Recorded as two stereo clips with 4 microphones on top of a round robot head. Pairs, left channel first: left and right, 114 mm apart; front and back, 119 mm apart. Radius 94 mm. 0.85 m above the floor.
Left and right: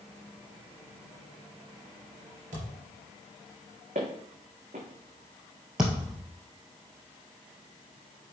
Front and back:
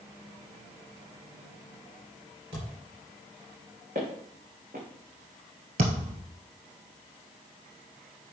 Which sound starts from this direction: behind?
A thud, at 5.8 s.